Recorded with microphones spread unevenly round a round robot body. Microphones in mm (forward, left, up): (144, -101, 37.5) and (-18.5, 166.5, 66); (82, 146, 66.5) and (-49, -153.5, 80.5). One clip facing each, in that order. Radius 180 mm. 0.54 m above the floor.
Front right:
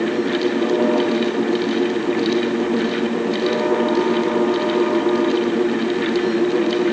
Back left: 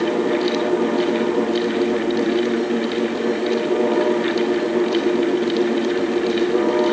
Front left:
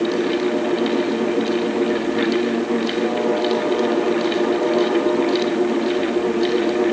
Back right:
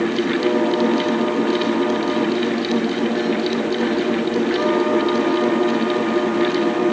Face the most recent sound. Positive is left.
No sound to turn to.